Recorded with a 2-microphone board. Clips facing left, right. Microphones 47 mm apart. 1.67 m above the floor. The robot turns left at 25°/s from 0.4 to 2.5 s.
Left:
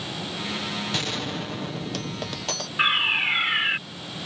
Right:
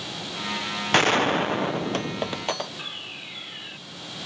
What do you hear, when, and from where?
0.9 s a gunshot: 120° right; by 2.7 s 160° right
2.8 s a fire alarm: 70° left (ahead or behind)